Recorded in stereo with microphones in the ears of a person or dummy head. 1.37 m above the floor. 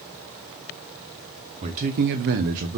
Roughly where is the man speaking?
Right.